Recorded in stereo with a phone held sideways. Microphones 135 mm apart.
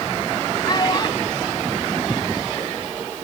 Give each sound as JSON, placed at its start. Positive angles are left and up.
{"t": 0.7, "sound": "a child speaking", "side_deg": 35}